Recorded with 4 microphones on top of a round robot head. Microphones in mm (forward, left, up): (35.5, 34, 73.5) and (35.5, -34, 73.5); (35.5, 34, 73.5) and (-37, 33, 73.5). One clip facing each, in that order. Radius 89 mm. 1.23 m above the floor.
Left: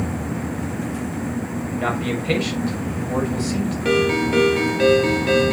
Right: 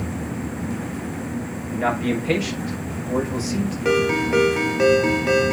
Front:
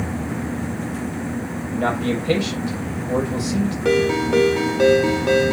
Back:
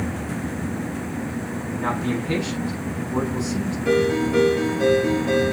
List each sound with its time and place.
1.7 s a man speaking: 10° right, 5.5 m
3.9 s a ringtone: 15° right, 1.3 m